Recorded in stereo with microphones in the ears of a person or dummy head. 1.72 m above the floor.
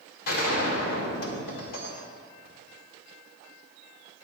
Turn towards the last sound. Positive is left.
turn(degrees=65)  # may be behind; listen again after turning